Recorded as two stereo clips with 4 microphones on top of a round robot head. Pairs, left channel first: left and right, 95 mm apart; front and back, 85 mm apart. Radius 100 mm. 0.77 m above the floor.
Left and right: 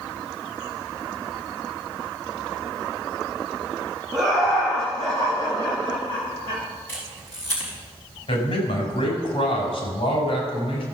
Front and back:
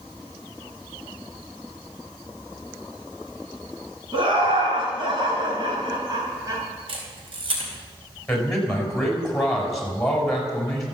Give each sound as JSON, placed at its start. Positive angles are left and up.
{"t": 4.1, "sound": "laughter", "azimuth_deg": 150, "distance_m": 5.5}
{"t": 6.9, "sound": "a camera shutter", "azimuth_deg": 160, "distance_m": 4.5}
{"t": 8.3, "sound": "a man speaking", "azimuth_deg": 85, "distance_m": 5.0}